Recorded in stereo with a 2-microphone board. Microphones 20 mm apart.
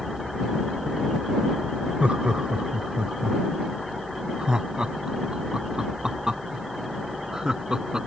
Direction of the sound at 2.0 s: 60° right (ahead or behind).